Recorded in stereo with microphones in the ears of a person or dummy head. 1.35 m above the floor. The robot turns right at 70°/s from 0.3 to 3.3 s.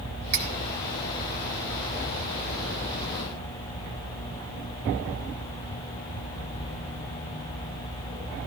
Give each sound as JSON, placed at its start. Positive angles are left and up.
{"t": 0.3, "sound": "cutlery clinking", "side_deg": -70, "distance_m": 2.5}